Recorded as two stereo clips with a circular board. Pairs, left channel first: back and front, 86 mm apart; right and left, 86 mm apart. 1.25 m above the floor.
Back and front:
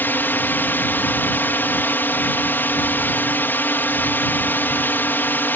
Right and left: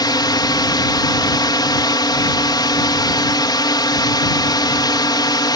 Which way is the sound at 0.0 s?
115° right.